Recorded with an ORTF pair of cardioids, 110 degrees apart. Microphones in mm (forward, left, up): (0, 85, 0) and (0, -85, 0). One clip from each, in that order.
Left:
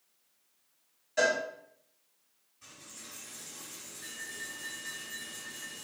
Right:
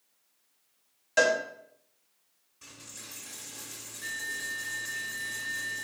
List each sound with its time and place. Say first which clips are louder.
1.2 s a cowbell: right 3 dB; 60° right, 1.3 m
2.6 s a dropped coin: right 3 dB; 60° right, 1.9 m